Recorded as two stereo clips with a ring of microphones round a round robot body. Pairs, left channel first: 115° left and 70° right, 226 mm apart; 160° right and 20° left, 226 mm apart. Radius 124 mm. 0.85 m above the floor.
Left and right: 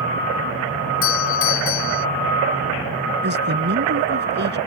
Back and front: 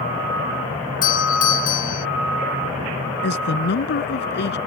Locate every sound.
1.0 s a doorbell: 145° left
3.2 s a man speaking: 115° right